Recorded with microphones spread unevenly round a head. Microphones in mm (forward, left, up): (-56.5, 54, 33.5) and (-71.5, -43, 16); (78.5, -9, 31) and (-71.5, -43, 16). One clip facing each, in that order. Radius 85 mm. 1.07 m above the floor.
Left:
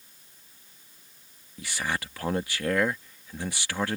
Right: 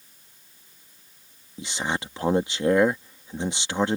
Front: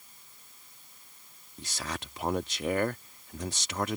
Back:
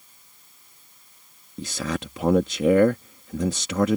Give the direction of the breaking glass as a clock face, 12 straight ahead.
I don't hear breaking glass.